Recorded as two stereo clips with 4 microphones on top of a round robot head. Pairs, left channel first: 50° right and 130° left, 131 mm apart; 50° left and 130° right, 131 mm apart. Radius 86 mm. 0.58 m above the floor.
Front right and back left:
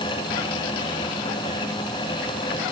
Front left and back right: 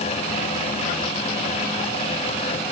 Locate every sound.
Only background noise.